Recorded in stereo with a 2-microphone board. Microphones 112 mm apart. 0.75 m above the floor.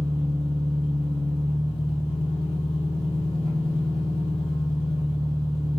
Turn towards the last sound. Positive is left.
turn(degrees=50)  # may be behind; listen again after turning